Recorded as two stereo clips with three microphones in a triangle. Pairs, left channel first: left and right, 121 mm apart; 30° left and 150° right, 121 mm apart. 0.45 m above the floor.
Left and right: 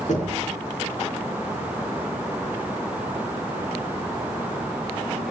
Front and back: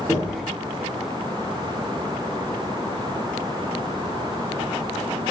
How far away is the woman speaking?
No woman speaking in this recording.